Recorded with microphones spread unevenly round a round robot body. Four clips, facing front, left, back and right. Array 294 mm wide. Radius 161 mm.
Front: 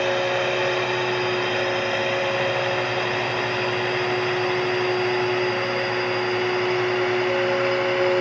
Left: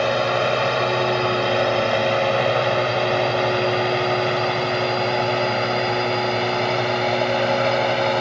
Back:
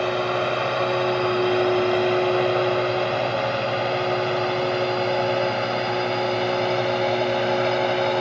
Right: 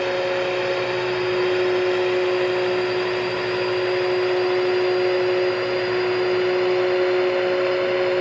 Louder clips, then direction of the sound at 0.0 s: Left 2 dB, even; 105° left.